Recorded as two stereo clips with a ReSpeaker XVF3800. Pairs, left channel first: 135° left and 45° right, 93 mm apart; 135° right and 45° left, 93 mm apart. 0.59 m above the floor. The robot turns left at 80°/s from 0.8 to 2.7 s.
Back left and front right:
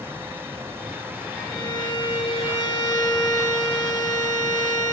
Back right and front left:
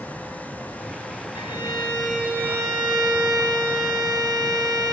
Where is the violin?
165° right, 1.9 m; by 4.9 s 90° left, 1.9 m.